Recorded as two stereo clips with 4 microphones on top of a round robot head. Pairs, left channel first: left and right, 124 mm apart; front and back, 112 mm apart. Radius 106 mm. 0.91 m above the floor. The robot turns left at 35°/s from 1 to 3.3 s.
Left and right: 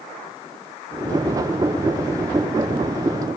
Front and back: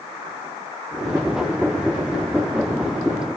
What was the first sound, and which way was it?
Only background noise.